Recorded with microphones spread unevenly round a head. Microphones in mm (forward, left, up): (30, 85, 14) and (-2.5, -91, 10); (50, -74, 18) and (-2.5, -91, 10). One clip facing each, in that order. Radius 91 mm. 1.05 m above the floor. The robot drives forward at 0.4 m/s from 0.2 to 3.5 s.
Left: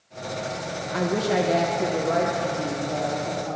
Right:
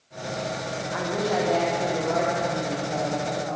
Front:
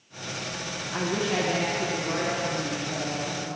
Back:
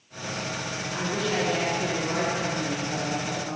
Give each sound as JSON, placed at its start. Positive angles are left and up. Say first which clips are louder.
{"t": 0.9, "sound": "a woman speaking", "louder": "left 3 dB, front 1 dB", "azimuth_deg": 80, "distance_m": 0.6}